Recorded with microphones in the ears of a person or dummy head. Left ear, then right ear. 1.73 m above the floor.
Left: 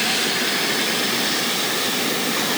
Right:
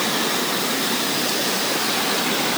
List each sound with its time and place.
Only background noise.